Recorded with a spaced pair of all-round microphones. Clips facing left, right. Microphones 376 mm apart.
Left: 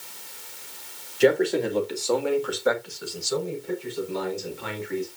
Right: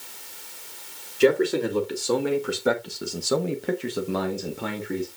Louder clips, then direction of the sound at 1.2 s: Even; 15° right (ahead or behind).